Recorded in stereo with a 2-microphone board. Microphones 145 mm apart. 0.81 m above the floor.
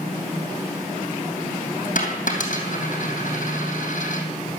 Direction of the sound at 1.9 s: 65° left (ahead or behind).